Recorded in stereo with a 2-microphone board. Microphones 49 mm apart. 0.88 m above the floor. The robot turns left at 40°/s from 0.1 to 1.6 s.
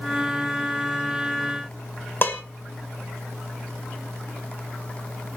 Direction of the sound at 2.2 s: 45° left (ahead or behind).